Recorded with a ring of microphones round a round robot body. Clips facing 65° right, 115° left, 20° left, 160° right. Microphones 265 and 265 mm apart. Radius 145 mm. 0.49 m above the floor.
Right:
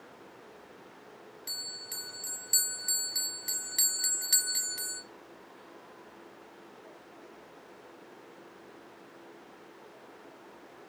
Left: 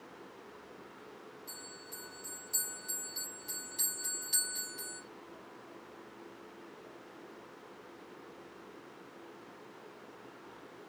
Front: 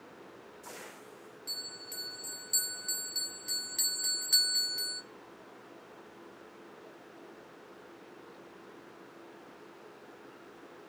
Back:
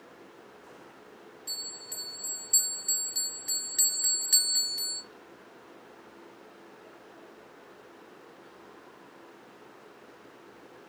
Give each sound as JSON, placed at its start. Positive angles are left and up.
{"t": 1.5, "sound": "a bell", "azimuth_deg": -80, "distance_m": 2.0}